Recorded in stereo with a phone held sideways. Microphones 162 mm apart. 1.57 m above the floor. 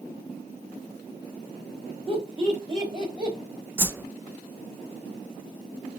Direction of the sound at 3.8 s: 15° right (ahead or behind).